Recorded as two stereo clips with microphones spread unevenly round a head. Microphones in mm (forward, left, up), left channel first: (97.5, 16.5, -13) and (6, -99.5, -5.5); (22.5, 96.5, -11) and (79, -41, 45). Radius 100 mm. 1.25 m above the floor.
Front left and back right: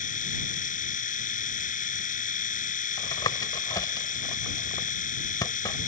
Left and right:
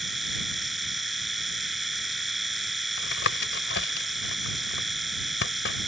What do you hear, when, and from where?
0.0 s a machine running: 20° left
3.0 s tapping: 125° left